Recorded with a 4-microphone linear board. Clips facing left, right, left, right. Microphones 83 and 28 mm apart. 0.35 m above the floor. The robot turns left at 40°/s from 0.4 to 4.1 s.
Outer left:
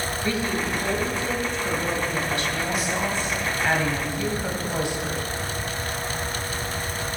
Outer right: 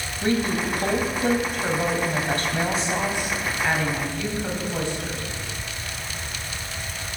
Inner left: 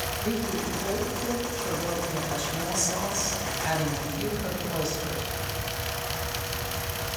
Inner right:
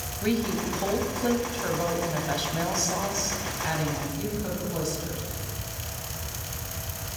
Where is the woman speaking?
50° right, 2.5 m; by 5.2 s 160° left, 2.5 m.